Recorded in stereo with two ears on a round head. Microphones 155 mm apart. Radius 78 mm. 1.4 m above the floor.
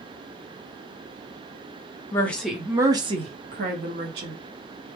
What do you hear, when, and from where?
2.1 s a woman speaking: 15° left (ahead or behind), 0.7 m; by 4.4 s 65° right (ahead or behind), 1.1 m